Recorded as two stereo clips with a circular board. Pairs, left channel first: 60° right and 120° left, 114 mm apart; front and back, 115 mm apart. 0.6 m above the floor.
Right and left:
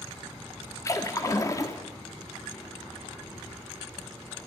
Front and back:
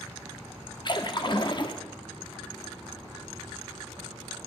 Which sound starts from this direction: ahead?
A splash, at 0.8 s.